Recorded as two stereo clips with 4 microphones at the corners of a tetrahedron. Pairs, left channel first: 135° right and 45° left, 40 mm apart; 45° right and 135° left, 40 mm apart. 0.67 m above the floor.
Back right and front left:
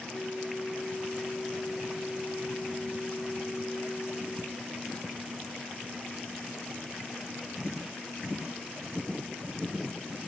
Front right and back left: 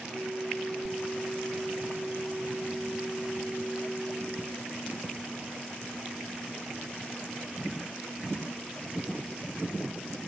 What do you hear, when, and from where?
0.1 s a flute: 95° left, 1.0 m